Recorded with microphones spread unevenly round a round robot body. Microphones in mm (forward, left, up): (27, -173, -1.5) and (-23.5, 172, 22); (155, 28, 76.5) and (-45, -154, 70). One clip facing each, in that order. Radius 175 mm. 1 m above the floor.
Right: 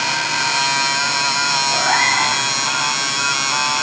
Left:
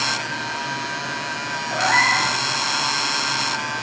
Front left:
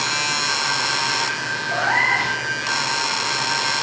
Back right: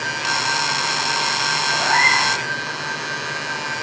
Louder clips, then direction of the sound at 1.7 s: Even, even; 75° left.